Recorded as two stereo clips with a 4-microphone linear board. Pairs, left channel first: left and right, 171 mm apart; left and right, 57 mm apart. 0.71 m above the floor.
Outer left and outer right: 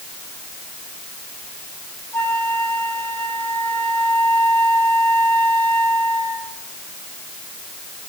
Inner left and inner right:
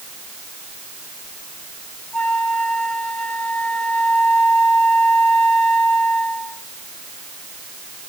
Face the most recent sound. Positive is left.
turn(degrees=15)  # may be behind; listen again after turning